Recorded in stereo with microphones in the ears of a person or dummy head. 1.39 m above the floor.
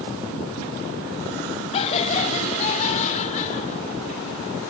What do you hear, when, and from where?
1.7 s laughter: 35° left (ahead or behind); by 4.2 s 40° left (ahead or behind)